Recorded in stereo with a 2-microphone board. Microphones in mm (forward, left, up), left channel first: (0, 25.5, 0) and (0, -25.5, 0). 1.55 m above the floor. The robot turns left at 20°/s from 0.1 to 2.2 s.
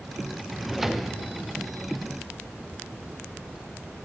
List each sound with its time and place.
0.5 s a drawer: centre (ahead or behind), 0.6 m; by 1.2 s 5° right (ahead or behind), 0.6 m